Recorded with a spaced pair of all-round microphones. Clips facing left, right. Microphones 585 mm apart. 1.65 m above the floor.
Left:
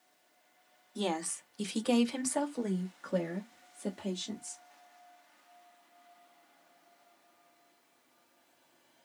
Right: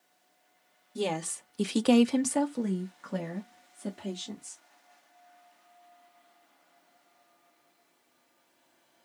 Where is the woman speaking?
50° right (ahead or behind), 0.7 m; by 4.6 s 5° right (ahead or behind), 1.5 m.